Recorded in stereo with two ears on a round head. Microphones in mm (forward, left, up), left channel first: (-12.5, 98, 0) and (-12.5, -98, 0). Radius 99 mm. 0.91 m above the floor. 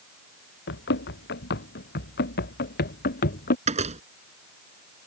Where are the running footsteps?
55° left (ahead or behind); by 3.6 s 45° left (ahead or behind).